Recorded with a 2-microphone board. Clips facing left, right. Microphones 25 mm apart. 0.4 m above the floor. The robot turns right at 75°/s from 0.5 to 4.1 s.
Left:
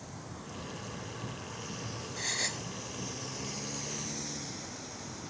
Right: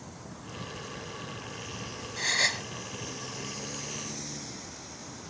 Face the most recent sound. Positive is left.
turn(degrees=-5)